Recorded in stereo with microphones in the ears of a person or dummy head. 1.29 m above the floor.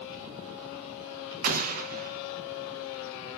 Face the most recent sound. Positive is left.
turn(degrees=-45)  # may be behind; listen again after turning